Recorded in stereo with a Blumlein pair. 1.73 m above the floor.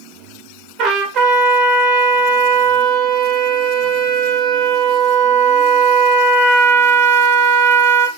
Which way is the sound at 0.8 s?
30° right.